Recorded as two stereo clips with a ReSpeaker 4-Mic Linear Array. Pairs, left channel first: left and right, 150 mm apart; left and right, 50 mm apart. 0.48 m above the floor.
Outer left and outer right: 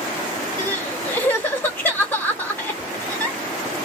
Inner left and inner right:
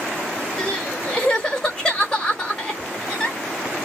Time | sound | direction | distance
0.6 | crying | 15° left (ahead or behind) | 1.2 m